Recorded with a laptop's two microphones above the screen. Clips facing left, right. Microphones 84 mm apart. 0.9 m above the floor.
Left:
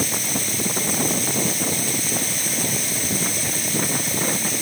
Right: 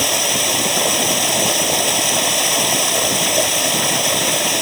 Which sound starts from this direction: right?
Running water, at 0.0 s.